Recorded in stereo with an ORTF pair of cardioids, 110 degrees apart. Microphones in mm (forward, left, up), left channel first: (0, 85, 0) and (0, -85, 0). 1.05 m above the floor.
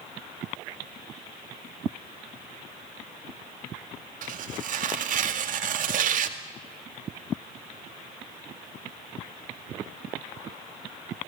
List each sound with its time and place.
4.2 s tearing paper: 55° right, 2 m